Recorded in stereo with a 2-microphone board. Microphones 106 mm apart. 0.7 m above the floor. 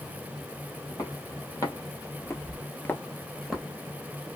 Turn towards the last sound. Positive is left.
turn(degrees=-5)  # may be behind; listen again after turning